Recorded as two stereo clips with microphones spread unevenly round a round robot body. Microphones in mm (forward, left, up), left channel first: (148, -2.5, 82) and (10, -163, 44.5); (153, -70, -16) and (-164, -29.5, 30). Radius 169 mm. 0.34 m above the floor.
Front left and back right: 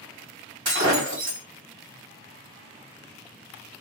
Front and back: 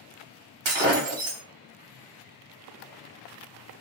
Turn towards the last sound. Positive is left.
turn(degrees=160)